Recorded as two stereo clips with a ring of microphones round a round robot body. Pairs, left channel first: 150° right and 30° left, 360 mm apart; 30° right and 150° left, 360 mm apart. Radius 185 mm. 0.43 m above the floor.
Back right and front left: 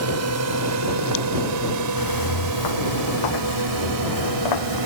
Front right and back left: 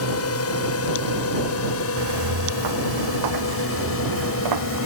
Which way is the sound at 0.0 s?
Straight ahead.